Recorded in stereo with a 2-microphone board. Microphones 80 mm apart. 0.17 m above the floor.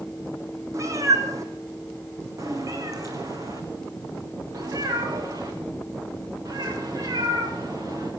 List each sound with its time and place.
0.7 s a cat meowing: 40° right (ahead or behind), 3 m; by 8.1 s 45° right (ahead or behind), 7 m